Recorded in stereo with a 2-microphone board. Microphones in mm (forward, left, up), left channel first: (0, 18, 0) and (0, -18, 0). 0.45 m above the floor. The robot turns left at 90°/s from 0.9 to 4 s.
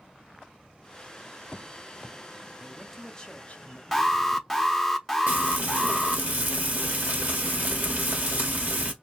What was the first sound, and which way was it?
A man speaking, 155° right.